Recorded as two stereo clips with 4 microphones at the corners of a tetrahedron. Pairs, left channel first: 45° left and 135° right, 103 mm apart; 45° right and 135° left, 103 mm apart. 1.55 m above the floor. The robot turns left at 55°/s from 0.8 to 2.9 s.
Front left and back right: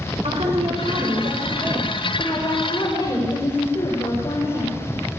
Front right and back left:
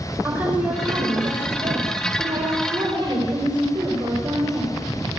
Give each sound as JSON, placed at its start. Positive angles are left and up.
{"t": 0.2, "sound": "a woman speaking", "azimuth_deg": -155, "distance_m": 6.5}